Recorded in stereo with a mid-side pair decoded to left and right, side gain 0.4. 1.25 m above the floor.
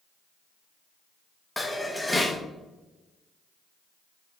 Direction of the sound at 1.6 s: 15° left.